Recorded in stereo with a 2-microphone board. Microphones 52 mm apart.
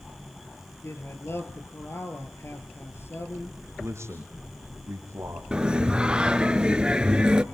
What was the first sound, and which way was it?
A man speaking, 55° left (ahead or behind).